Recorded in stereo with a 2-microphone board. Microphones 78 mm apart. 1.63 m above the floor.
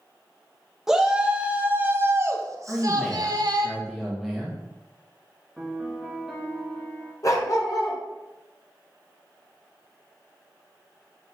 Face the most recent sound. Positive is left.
turn(degrees=45)  # may be behind; listen again after turning